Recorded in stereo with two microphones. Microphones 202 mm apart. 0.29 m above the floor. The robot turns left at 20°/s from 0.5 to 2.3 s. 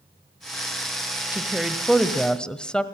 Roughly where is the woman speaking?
Centre.